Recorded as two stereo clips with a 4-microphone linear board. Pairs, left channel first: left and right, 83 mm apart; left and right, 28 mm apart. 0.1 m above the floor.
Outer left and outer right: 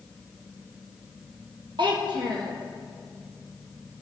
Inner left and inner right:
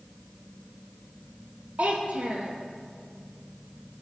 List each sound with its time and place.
1.8 s a child speaking: 65° right (ahead or behind), 2 m